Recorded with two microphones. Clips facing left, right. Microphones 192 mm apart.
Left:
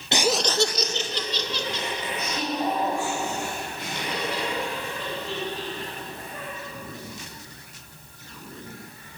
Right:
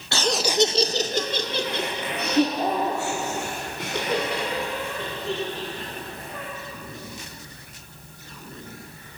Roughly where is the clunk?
I don't hear a clunk.